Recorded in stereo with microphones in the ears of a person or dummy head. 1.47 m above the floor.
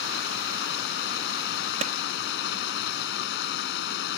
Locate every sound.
0.0 s running water: 65° left (ahead or behind)
1.8 s a clap: 45° right (ahead or behind)